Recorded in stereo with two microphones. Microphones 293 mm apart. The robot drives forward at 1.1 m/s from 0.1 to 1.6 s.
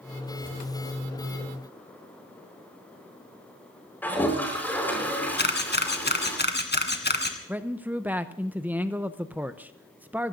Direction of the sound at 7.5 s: 5° right (ahead or behind).